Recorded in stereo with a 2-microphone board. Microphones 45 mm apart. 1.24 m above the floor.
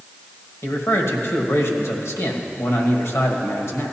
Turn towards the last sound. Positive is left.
turn(degrees=80)